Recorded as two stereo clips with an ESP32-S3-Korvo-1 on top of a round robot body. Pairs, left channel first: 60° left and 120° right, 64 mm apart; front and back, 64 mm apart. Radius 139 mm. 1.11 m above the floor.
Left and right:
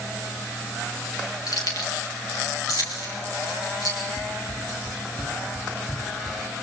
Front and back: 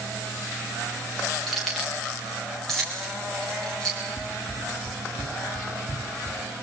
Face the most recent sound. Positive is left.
turn(degrees=-15)